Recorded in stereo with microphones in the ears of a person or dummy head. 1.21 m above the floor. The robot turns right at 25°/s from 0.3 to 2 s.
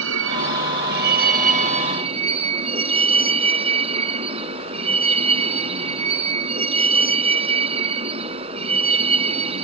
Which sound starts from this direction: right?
A vehicle, at 0.0 s.